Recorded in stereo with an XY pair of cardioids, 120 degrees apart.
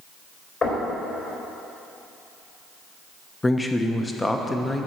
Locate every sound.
0.6 s knocking: 40° left, 4 m
3.4 s a man speaking: 15° left, 1.0 m